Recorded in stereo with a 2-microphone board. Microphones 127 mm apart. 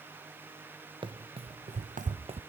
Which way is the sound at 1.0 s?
40° right (ahead or behind).